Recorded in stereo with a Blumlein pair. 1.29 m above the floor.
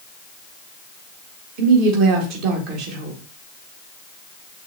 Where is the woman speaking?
40° right, 1.6 m.